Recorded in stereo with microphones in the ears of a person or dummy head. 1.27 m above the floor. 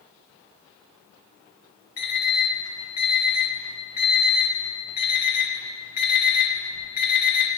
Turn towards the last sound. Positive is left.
turn(degrees=45)  # may be behind; listen again after turning